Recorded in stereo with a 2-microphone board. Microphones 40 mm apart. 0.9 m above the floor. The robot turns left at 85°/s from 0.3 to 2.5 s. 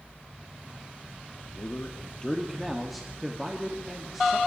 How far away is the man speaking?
About 1.7 m.